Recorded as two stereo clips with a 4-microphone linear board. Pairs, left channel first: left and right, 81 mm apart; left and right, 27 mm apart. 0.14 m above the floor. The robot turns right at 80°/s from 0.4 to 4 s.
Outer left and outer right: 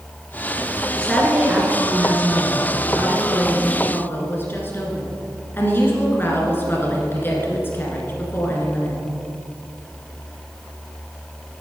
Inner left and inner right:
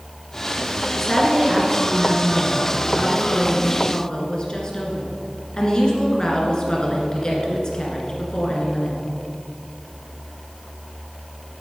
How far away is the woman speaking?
About 1.7 m.